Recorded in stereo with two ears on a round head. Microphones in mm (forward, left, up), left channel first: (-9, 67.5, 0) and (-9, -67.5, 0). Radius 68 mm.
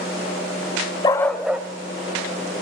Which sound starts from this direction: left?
A dog barking, at 1.0 s.